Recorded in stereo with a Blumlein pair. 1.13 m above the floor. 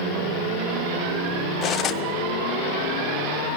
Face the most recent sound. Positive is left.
turn(degrees=30)